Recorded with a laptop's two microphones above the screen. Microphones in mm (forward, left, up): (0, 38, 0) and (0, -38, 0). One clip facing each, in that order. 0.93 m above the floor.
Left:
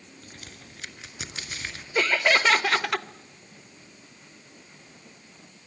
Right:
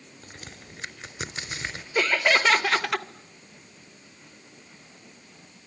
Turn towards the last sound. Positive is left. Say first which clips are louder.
# even
turn(degrees=0)  # may be behind; listen again after turning